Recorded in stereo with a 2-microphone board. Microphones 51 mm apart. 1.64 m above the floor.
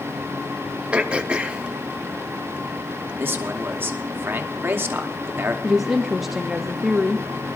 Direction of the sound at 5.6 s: 5° right (ahead or behind).